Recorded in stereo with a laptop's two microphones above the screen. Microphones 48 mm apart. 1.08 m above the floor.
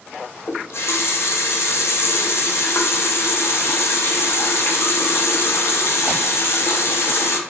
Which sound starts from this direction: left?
A running tap, at 0.5 s.